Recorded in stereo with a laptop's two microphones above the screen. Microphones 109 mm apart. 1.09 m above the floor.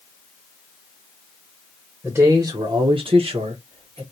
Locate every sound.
2.0 s a man speaking: 10° right (ahead or behind), 0.9 m; by 4.0 s 55° right (ahead or behind), 1.4 m